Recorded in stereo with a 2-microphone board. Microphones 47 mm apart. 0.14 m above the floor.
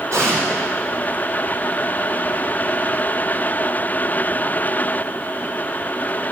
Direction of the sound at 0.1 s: 70° right (ahead or behind).